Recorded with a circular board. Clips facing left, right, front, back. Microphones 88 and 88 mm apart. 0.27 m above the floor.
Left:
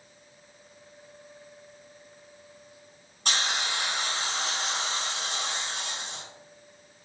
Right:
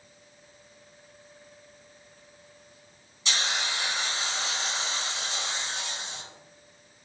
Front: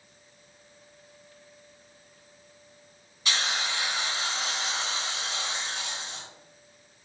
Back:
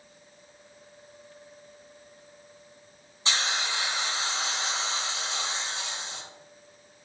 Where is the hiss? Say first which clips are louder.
Left 1 dB, even; 120° left, 1.5 m.